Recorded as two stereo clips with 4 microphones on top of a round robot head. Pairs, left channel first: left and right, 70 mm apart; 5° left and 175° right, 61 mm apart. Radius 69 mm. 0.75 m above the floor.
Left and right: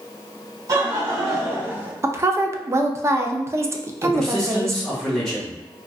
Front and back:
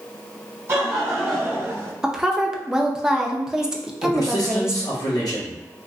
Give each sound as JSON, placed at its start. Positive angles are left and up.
{"t": 0.7, "sound": "laughter", "azimuth_deg": -120, "distance_m": 1.4}
{"t": 2.0, "sound": "a woman speaking", "azimuth_deg": -100, "distance_m": 0.5}
{"t": 4.0, "sound": "a man speaking", "azimuth_deg": 5, "distance_m": 1.7}